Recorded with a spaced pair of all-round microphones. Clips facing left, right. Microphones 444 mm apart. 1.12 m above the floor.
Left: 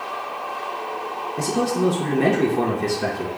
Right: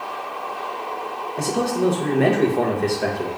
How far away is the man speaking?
About 0.8 m.